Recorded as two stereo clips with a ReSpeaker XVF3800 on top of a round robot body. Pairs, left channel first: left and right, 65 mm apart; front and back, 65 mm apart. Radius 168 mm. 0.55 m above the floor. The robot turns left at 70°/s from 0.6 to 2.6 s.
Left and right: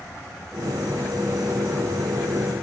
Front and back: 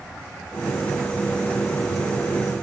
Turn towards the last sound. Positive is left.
No sound to turn to.